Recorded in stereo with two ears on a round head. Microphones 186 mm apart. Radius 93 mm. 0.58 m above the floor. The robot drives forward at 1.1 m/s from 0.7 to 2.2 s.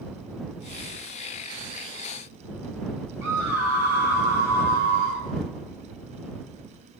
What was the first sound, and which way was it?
A scream, 80° right.